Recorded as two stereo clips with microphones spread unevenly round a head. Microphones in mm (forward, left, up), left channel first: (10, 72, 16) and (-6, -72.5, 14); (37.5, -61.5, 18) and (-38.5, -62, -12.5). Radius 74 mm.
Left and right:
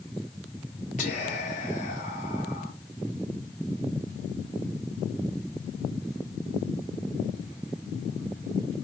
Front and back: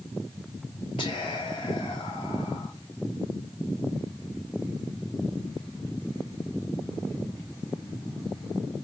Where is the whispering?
45° left, 1.4 m.